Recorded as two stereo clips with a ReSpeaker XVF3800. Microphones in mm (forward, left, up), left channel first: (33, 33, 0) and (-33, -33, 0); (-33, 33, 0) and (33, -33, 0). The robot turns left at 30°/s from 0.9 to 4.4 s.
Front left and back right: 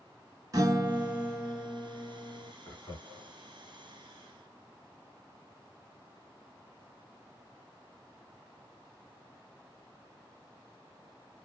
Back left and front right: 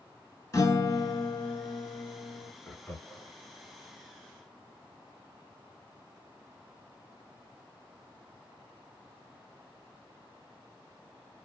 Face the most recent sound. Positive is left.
turn(degrees=15)